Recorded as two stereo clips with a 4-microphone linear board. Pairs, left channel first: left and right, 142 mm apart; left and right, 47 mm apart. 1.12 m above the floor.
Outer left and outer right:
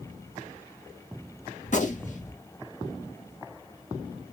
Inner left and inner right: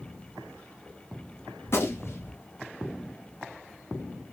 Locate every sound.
1.6 s a gunshot: 60° left (ahead or behind), 0.9 m